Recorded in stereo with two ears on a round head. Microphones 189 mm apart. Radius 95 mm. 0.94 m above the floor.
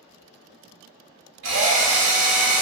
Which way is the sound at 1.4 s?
60° right (ahead or behind).